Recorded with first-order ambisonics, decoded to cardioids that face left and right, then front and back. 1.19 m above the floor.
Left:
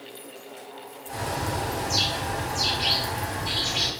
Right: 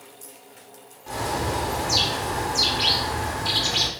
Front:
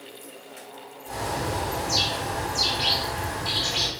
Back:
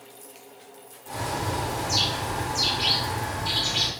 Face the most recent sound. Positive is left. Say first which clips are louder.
# right 3 dB, even
turn(degrees=-85)